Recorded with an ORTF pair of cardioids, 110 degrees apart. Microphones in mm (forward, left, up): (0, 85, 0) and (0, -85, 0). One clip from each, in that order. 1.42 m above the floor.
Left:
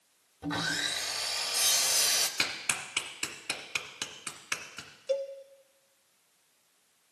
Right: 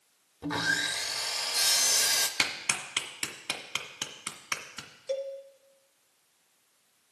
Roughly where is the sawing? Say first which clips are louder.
Right 3 dB; ahead.